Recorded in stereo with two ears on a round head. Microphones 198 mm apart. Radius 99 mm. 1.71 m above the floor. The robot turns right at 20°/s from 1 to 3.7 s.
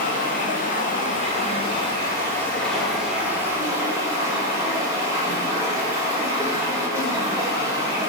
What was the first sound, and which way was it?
Running water, 140° left.